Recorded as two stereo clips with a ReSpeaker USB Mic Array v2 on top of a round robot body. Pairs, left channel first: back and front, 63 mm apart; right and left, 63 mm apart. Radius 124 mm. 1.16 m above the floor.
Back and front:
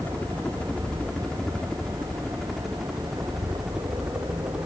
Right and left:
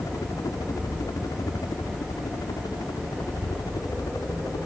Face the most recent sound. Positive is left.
turn(degrees=-75)